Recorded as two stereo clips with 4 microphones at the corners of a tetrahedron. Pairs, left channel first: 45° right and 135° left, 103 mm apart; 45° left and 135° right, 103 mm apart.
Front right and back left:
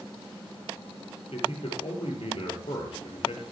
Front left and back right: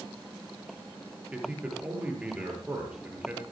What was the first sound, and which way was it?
A man speaking, 60° right.